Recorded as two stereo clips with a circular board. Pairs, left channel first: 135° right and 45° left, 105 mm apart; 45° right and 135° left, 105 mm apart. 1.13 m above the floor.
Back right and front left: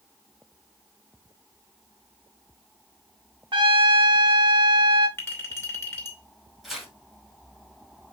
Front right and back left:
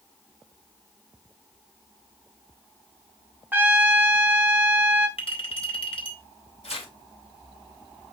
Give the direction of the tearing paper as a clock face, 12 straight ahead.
1 o'clock.